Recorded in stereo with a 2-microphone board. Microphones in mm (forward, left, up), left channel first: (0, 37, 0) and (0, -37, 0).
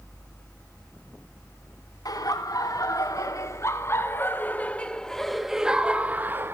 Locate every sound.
2.0 s laughter: 60° left (ahead or behind), 2.5 m; by 6.5 s 30° right (ahead or behind), 1.7 m